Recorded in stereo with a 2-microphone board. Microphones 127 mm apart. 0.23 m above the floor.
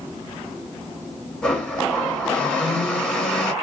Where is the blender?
10° left (ahead or behind), 1.3 m.